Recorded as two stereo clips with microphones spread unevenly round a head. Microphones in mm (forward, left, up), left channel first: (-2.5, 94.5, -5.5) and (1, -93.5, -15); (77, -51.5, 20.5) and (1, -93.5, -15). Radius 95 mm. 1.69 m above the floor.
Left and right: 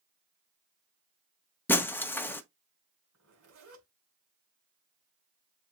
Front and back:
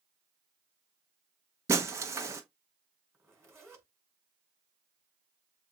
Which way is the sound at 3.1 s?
85° right.